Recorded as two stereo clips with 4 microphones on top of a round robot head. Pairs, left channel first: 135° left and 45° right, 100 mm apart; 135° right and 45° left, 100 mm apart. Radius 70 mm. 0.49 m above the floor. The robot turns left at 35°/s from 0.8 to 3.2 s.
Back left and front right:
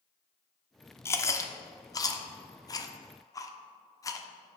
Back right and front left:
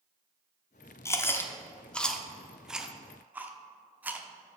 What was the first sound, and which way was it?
Chewing, straight behind.